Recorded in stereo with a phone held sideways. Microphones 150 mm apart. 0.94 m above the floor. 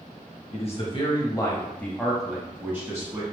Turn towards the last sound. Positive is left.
turn(degrees=-20)  # may be behind; listen again after turning